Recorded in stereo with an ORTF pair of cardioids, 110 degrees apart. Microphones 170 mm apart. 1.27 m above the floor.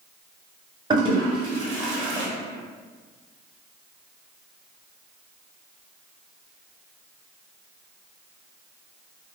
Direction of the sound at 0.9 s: 25° right.